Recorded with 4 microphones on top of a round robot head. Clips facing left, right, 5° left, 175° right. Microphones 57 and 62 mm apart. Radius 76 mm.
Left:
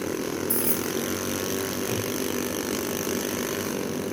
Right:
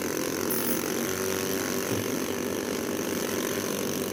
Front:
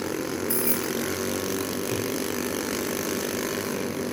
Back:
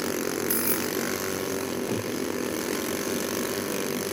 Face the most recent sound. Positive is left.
turn(degrees=145)